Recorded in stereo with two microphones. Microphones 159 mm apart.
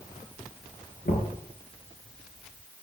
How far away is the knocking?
About 5.5 m.